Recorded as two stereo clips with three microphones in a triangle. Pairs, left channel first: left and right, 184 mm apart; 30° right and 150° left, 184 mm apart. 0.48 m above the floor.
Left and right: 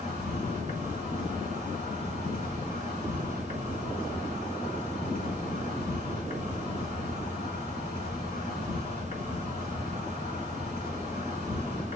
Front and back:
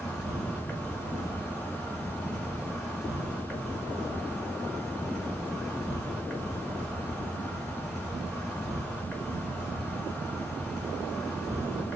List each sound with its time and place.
0.0 s an insect: 65° left, 1.8 m